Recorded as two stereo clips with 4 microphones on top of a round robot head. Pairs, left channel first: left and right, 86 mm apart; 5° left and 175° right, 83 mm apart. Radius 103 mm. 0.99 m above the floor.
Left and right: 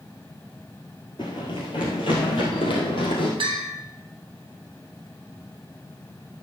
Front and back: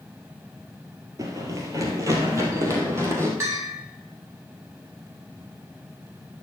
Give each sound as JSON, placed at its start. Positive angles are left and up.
{"t": 1.2, "sound": "running footsteps", "azimuth_deg": 145, "distance_m": 1.3}
{"t": 3.4, "sound": "a bell", "azimuth_deg": -120, "distance_m": 3.0}